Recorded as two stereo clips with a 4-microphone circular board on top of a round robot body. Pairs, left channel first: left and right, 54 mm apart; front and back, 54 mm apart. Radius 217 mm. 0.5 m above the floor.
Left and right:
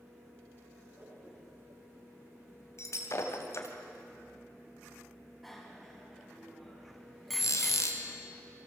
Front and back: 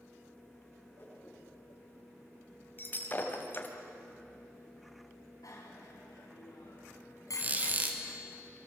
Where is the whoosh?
50° right, 8 m.